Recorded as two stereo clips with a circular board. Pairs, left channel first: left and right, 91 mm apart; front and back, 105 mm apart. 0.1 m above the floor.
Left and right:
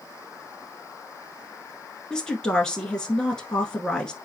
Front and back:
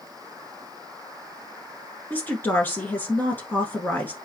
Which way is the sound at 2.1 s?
25° left.